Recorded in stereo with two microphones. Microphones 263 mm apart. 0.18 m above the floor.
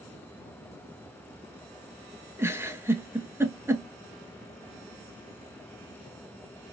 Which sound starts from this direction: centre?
A giggle, at 2.4 s.